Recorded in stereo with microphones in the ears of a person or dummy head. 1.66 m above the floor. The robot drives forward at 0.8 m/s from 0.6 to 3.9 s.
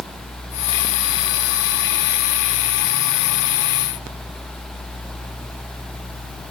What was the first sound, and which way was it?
Only background noise.